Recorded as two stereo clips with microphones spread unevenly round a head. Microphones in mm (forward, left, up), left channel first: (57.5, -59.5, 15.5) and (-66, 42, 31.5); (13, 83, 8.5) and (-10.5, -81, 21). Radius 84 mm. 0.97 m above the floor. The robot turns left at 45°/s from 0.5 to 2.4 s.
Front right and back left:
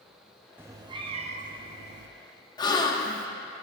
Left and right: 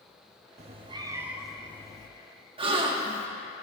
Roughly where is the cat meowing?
Behind right.